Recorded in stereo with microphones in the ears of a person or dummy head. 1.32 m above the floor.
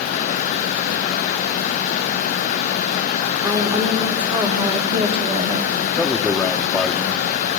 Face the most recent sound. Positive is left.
turn(degrees=5)  # may be behind; listen again after turning